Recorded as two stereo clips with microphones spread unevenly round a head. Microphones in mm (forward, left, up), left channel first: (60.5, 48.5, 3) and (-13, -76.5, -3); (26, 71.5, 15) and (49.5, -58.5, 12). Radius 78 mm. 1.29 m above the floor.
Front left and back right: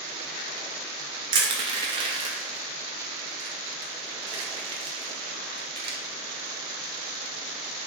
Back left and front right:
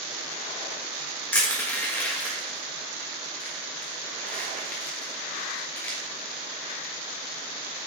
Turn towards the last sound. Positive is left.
turn(degrees=180)